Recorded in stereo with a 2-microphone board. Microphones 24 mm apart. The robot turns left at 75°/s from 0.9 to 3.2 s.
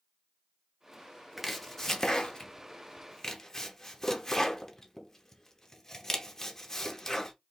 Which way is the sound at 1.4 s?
Centre (ahead or behind).